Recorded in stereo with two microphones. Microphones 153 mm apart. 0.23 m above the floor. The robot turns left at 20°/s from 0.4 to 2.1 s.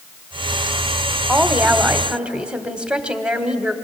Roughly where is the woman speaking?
Centre.